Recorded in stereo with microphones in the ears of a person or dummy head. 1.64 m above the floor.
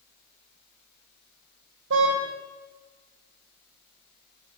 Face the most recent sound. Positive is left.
turn(degrees=-65)  # may be behind; listen again after turning